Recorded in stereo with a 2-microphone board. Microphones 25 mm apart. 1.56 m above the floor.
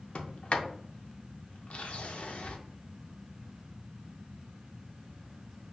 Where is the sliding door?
65° left (ahead or behind), 0.5 m.